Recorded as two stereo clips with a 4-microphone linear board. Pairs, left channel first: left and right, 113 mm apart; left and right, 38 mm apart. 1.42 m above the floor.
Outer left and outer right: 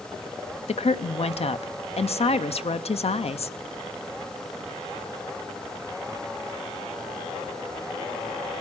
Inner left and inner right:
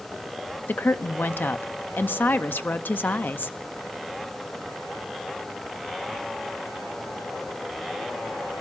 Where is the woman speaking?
65° left (ahead or behind), 0.5 m.